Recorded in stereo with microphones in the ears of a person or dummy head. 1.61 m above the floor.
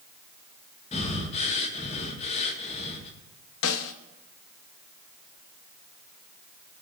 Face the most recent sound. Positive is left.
turn(degrees=75)  # may be behind; listen again after turning